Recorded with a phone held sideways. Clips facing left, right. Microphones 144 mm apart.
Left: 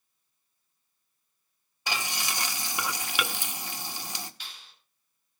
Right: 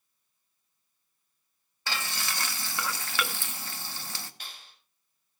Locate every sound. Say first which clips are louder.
1.9 s frying: left 2 dB; 15° left (ahead or behind), 1.2 m
4.4 s a clap: right 1 dB; 50° right (ahead or behind), 5.5 m